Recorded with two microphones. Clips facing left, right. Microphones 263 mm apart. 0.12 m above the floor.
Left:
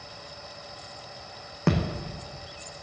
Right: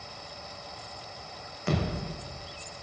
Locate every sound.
1.7 s a thud: 70° left (ahead or behind), 2.5 m